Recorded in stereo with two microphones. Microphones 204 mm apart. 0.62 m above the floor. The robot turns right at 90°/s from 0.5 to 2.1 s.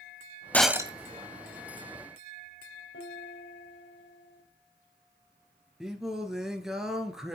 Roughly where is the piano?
Left.